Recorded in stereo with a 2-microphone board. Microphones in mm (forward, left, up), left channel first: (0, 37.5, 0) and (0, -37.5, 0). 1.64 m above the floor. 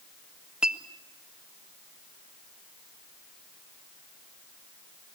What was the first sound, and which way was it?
A clink, 10° right (ahead or behind).